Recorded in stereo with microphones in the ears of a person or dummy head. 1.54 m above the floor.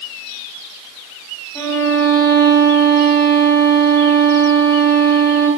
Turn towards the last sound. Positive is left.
turn(degrees=15)  # may be behind; listen again after turning